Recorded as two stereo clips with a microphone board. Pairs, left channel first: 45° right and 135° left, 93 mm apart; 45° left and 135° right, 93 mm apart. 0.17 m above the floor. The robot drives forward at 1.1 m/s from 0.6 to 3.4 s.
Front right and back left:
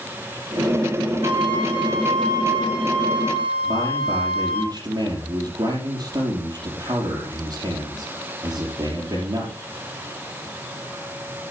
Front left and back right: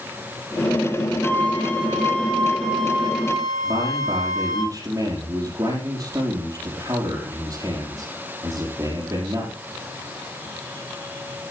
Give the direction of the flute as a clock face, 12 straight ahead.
8 o'clock.